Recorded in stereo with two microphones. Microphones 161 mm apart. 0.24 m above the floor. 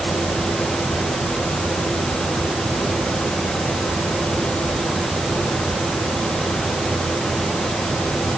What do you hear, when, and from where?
Only background noise.